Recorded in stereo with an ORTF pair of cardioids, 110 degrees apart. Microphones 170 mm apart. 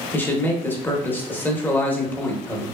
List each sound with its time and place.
0.1 s a man speaking: 10° left, 0.7 m